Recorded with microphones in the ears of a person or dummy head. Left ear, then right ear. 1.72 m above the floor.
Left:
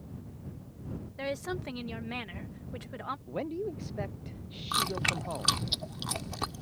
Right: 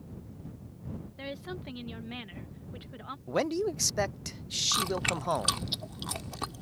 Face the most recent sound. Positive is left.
turn(degrees=0)  # may be behind; listen again after turning